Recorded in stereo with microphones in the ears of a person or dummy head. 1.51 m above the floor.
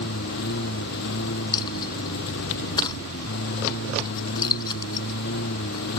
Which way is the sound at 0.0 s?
65° left (ahead or behind).